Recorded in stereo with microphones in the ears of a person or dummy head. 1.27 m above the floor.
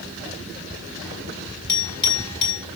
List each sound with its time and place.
1.7 s a clink: 25° left (ahead or behind), 6.5 m